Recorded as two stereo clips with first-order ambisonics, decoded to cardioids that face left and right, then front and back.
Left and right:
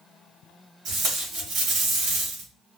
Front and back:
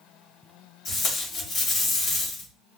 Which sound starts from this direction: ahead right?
Tape being pulled, at 0.8 s.